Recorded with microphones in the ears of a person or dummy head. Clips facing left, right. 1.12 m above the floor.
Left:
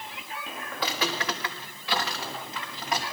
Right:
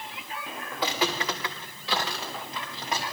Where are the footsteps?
15° right (ahead or behind), 4 m; by 3.0 s 25° right (ahead or behind), 6 m.